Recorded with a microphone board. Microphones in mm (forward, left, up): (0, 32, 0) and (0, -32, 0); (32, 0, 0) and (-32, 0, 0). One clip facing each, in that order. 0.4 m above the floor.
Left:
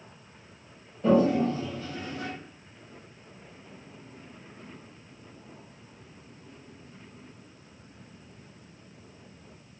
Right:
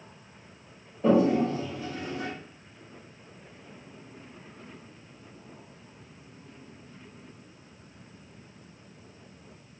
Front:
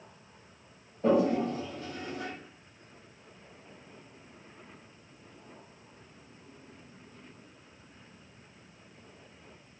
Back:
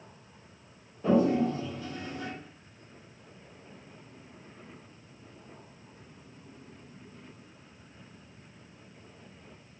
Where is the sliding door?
I don't hear a sliding door.